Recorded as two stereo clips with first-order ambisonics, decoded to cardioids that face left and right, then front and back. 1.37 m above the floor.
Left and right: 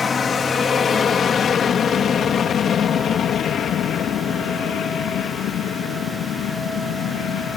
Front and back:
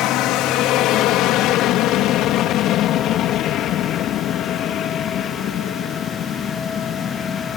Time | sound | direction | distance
0.0 | an aircraft | 25° left | ?